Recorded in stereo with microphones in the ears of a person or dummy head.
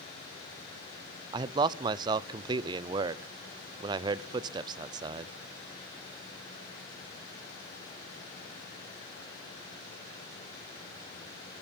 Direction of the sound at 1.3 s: 25° right (ahead or behind).